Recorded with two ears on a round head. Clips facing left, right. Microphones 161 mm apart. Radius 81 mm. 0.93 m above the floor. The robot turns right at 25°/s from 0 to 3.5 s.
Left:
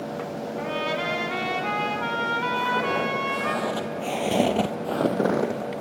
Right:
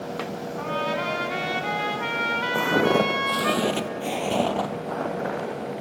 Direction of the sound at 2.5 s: 65° right (ahead or behind).